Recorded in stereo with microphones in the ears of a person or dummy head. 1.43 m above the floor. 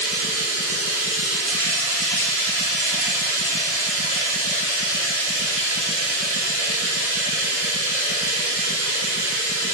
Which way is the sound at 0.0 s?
50° right (ahead or behind).